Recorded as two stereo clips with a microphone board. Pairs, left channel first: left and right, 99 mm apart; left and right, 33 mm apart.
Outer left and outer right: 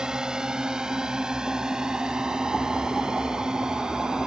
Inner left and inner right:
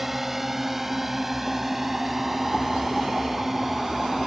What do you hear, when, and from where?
0.0 s a drone: 10° right (ahead or behind)